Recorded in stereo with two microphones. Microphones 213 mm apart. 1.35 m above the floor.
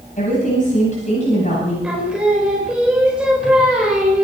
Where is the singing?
5° right (ahead or behind), 4.5 m.